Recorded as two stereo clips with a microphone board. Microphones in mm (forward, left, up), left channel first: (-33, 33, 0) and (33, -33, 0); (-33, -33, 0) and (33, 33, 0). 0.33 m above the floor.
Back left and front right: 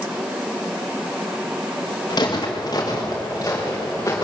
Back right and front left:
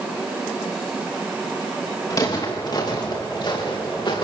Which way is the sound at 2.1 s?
Straight behind.